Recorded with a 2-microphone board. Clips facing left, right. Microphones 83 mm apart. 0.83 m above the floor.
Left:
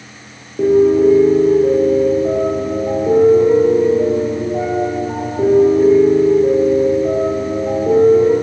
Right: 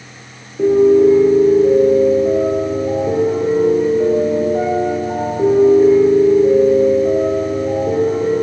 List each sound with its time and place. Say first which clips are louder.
0.6 s a piano: right 1 dB; 55° left (ahead or behind), 8.5 m